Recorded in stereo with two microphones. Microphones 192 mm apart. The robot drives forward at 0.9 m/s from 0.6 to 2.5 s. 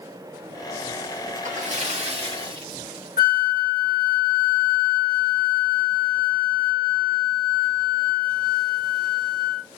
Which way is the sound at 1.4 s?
45° right (ahead or behind).